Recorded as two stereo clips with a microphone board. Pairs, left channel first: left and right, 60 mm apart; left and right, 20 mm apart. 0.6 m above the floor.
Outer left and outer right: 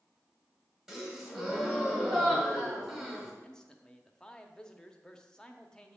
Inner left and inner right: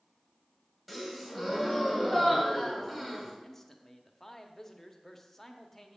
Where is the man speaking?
15° left (ahead or behind), 0.7 m.